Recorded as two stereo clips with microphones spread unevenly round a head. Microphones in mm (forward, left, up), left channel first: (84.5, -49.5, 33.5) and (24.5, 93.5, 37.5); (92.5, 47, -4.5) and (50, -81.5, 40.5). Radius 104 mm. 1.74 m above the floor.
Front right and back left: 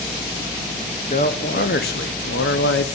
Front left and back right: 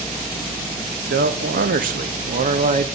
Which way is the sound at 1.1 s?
125° right.